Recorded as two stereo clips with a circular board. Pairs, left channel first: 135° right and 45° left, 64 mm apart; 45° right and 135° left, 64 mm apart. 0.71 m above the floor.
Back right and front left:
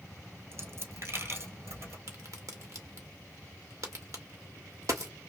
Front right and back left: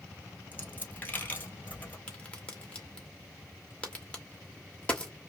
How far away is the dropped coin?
About 1.2 m.